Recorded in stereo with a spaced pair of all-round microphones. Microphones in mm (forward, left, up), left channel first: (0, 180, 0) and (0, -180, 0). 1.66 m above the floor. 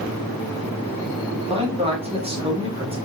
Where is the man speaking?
15° right (ahead or behind), 0.7 m.